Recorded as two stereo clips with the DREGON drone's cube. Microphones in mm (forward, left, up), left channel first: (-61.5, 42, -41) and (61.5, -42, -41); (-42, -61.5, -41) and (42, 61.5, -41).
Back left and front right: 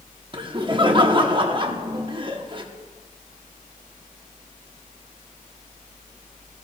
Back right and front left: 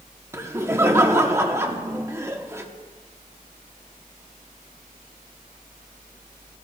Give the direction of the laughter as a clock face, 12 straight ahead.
12 o'clock.